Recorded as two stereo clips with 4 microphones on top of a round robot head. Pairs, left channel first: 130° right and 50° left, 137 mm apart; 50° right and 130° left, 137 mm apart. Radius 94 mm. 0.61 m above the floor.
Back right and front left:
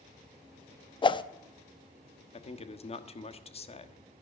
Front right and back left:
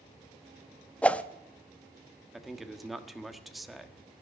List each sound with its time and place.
1.0 s a whoosh: 125° right, 0.8 m
2.3 s a man speaking: 145° right, 1.4 m